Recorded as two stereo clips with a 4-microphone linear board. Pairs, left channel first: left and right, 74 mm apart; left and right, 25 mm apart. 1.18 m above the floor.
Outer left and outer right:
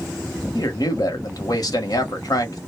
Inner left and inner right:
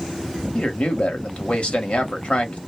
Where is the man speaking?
55° left (ahead or behind), 1.2 m.